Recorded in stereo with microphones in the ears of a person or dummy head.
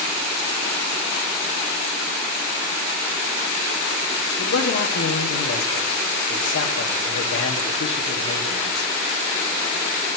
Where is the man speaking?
75° left (ahead or behind), 2 m.